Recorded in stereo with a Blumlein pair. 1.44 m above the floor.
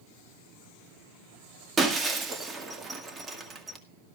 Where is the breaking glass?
15° right, 1.9 m.